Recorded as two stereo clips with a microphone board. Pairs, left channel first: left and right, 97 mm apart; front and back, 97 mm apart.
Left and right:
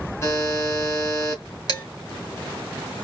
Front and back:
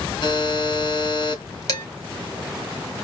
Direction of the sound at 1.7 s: 45° left.